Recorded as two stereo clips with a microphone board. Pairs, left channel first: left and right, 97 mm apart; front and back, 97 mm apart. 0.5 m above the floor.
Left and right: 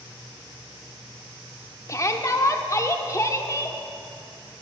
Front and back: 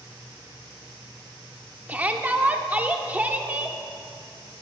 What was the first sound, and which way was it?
A shout, 115° left.